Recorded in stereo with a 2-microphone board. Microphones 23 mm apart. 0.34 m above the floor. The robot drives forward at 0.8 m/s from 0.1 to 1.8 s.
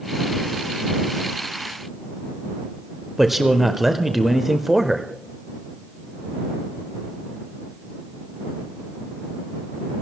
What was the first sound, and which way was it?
A man speaking, 10° right (ahead or behind).